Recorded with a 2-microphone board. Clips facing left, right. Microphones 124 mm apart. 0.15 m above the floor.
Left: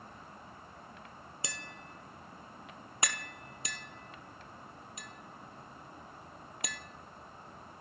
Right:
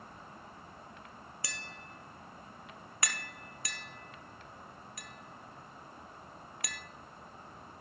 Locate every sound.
1.4 s tapping: 20° left (ahead or behind), 0.8 m